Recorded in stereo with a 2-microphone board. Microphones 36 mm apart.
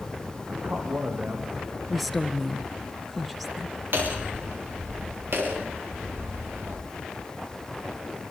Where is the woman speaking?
Centre (ahead or behind), 1.4 m.